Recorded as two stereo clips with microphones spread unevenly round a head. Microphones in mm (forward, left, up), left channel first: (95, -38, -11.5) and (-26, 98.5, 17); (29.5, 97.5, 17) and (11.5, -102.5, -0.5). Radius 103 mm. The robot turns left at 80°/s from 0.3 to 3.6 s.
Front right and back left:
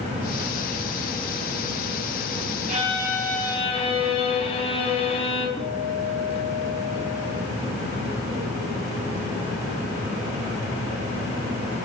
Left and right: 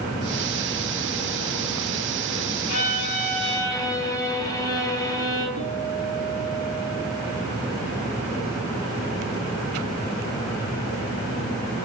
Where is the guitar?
25° left, 6.5 m.